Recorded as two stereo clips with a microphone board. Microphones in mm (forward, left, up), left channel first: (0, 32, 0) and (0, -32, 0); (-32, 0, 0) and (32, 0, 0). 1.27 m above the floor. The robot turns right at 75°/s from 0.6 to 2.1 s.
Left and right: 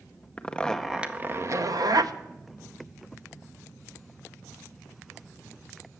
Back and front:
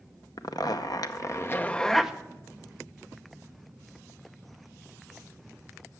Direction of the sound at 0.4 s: 165° left.